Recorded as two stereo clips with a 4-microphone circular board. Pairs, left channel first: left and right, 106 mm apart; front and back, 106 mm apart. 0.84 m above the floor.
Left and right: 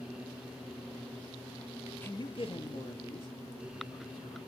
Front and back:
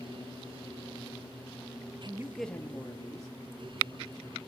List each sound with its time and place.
2.0 s a man speaking: 160° left, 0.5 m; by 4.4 s 45° left, 3 m